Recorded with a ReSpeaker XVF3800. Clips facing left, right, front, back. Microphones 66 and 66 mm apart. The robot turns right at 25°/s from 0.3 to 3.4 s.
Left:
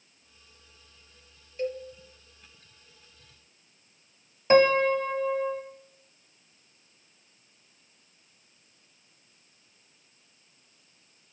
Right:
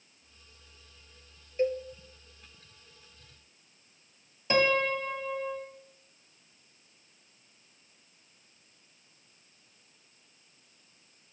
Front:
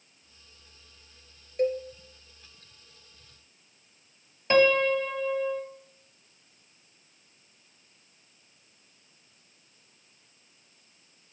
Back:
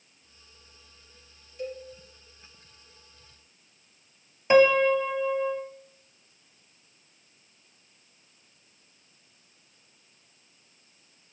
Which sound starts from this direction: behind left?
A piano, at 4.5 s.